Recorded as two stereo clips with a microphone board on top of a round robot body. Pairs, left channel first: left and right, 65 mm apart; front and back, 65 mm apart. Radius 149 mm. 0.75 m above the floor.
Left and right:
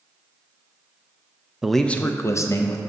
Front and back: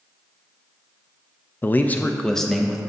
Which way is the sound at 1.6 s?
10° right.